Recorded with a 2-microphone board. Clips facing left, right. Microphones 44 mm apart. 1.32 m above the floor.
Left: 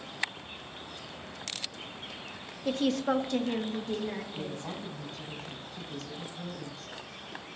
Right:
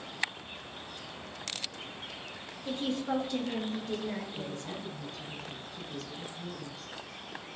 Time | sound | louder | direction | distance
2.6 | a woman speaking | left 5 dB | 80° left | 0.7 m
4.3 | a woman speaking | left 1 dB | 65° left (ahead or behind) | 4.5 m